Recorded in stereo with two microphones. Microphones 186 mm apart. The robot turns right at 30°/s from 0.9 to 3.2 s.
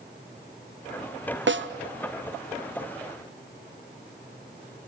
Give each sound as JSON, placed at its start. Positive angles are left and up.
{"t": 1.5, "sound": "a snare drum", "side_deg": -85, "distance_m": 0.8}